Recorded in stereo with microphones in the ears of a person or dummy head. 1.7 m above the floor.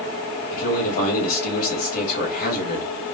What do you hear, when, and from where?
0.5 s a man speaking: 55° left (ahead or behind), 2.5 m